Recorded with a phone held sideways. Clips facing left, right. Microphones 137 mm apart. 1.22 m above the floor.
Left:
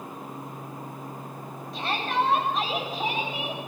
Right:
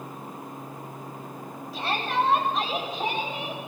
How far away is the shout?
About 8.5 m.